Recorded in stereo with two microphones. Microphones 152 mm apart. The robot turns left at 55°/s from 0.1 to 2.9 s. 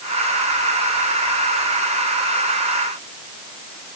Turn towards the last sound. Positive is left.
No sound to turn to.